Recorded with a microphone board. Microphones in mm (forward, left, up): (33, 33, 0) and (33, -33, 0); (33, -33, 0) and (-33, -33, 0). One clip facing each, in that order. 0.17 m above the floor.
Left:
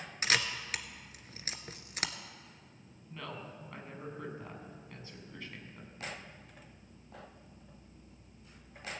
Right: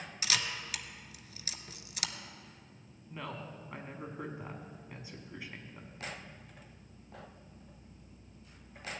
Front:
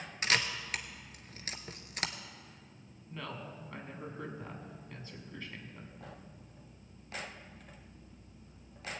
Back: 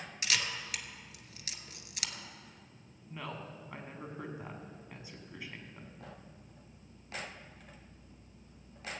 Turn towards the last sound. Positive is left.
turn(degrees=-130)